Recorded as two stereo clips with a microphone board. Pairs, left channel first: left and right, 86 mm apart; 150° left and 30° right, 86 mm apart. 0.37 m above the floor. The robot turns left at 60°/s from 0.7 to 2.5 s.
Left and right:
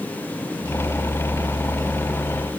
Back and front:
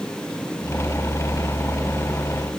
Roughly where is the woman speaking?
No woman speaking in this recording.